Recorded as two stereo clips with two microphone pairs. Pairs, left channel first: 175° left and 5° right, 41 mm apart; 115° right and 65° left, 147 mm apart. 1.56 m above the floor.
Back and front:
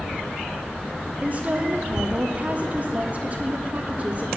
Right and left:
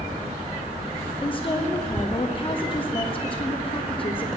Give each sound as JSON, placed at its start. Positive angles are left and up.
{"t": 1.2, "sound": "a woman speaking", "azimuth_deg": -60, "distance_m": 0.8}